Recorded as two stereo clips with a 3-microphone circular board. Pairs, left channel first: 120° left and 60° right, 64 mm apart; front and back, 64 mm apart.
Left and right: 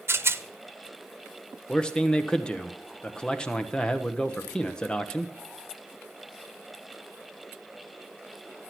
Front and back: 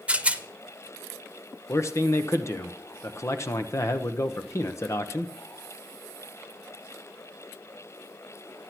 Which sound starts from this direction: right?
A rattle, at 0.1 s.